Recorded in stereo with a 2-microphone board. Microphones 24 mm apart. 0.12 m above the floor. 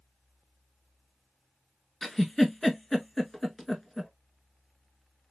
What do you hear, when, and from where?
2.0 s a giggle: 10° left (ahead or behind), 0.8 m